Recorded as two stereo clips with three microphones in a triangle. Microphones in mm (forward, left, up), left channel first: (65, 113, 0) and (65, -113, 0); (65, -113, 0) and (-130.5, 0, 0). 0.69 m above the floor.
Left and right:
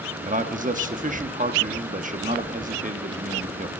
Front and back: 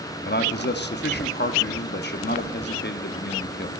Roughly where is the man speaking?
Ahead right.